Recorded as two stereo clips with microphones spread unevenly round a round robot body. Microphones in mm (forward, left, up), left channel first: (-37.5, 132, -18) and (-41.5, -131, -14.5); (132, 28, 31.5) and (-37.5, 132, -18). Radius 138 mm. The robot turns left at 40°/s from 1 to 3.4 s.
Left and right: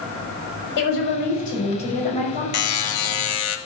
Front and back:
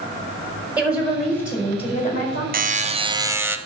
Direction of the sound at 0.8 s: 65° left.